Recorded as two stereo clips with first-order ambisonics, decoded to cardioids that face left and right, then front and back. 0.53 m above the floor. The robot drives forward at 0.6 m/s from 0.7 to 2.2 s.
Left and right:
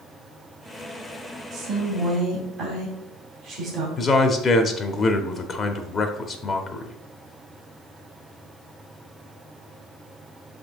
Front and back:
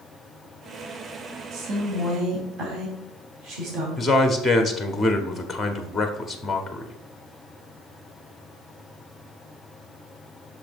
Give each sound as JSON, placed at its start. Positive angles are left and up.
{"t": 1.5, "sound": "a woman speaking", "azimuth_deg": -145, "distance_m": 2.0}
{"t": 4.0, "sound": "a man speaking", "azimuth_deg": 80, "distance_m": 0.7}